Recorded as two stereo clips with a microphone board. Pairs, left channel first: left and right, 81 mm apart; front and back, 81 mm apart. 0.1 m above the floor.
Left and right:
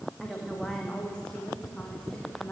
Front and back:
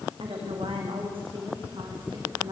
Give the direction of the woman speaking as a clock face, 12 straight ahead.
6 o'clock.